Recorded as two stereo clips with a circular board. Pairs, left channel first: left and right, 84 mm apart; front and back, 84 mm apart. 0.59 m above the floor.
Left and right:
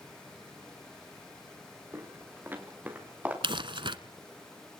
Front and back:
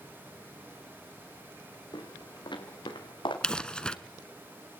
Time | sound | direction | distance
1.9 | footsteps | 25° right | 6 m
3.4 | crumpling | 80° right | 1.5 m